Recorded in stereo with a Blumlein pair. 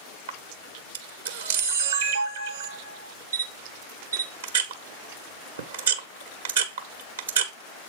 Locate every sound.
0.3 s a camera shutter: 70° right, 1.5 m